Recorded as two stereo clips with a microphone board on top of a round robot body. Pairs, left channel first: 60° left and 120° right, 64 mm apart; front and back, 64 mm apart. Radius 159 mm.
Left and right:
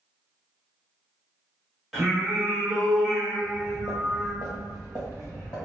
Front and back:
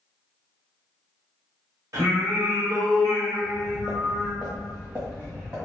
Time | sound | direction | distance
1.9 | singing | 155° left | 1.7 m
3.4 | footsteps | 80° left | 0.5 m